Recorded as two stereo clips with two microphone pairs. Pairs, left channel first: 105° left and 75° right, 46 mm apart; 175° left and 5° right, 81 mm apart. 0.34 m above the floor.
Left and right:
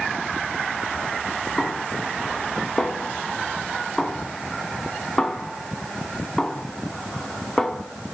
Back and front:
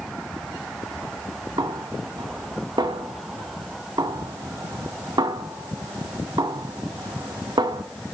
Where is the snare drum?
20° left, 0.5 m.